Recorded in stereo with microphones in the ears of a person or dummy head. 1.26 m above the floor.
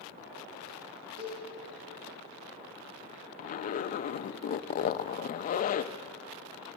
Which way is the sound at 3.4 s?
45° left (ahead or behind).